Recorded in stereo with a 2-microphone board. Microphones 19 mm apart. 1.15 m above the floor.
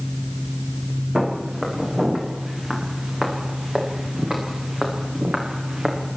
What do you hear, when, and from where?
1.1 s footsteps: 30° right (ahead or behind), 9 m; by 6.0 s 45° right (ahead or behind), 7 m